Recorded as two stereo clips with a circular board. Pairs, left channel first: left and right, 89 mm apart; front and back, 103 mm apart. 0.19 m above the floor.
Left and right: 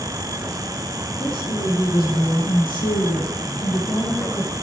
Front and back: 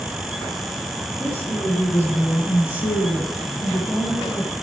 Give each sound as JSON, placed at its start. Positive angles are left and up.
{"t": 1.2, "sound": "a woman speaking", "azimuth_deg": 65, "distance_m": 6.5}